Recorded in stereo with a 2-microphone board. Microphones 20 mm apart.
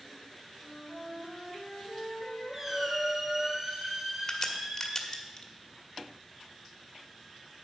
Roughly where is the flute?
Left.